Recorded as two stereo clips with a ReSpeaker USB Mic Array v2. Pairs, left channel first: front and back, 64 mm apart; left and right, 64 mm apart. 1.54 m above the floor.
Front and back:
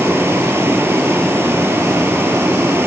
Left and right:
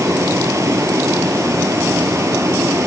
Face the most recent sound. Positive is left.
turn(degrees=-130)